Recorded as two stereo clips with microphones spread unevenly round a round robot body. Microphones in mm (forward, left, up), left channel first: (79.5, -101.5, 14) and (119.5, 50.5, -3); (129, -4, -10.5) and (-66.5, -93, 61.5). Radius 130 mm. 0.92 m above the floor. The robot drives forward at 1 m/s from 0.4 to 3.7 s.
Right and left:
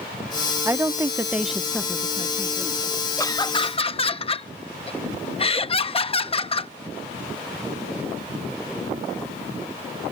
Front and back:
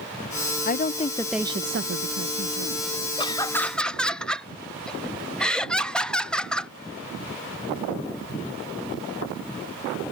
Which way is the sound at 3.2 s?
35° right.